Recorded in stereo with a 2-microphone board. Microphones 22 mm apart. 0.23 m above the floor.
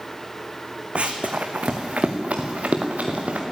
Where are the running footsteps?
65° right (ahead or behind), 1.1 m; by 3.4 s 85° right, 2.5 m.